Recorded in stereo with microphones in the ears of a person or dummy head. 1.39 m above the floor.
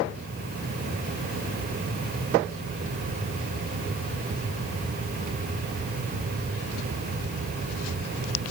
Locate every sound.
Only background noise.